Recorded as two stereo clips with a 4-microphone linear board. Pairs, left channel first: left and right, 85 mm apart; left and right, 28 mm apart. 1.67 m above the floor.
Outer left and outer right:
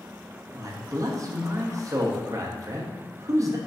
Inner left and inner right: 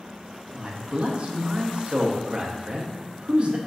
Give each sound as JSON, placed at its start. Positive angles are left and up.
{"t": 0.5, "sound": "a man speaking", "side_deg": -40, "distance_m": 0.7}